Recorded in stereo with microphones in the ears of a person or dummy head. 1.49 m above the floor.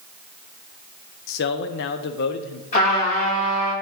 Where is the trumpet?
45° left (ahead or behind), 4 m.